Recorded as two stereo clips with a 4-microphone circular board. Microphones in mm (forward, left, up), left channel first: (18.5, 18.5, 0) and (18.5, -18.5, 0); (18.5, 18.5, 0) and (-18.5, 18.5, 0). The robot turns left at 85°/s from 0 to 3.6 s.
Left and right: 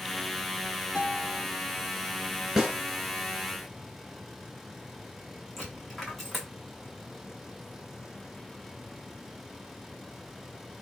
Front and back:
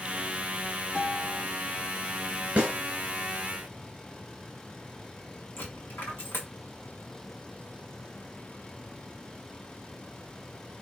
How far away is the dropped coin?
About 1.5 m.